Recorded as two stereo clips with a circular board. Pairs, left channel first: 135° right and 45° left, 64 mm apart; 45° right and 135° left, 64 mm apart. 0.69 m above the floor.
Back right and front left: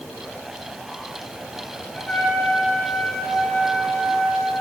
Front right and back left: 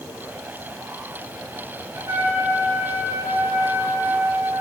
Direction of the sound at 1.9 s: 155° left.